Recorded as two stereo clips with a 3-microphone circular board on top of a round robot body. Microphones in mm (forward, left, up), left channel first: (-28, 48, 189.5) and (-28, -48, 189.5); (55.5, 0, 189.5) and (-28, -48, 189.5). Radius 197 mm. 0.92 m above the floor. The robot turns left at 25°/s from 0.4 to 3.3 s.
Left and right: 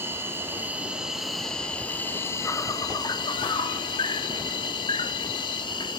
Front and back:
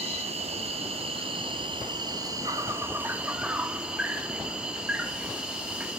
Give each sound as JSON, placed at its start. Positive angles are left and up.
{"t": 0.0, "sound": "an insect", "azimuth_deg": -155, "distance_m": 0.9}